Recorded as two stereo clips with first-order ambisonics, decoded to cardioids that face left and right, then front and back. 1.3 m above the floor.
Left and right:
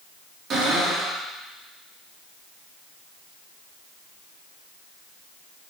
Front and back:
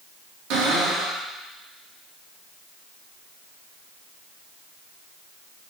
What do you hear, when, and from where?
0.5 s a cupboard door: 150° right, 3 m